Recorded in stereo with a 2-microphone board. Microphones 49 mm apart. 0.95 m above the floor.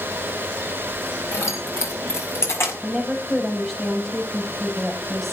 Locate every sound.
1.3 s keys jangling: 85° left, 4 m; by 2.7 s 75° left (ahead or behind), 5.5 m
2.8 s a woman speaking: 10° left (ahead or behind), 6 m